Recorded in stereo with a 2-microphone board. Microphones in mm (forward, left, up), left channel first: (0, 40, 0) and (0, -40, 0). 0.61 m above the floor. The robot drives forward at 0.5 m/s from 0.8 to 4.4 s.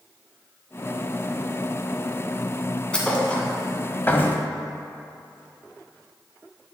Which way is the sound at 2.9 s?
15° left (ahead or behind).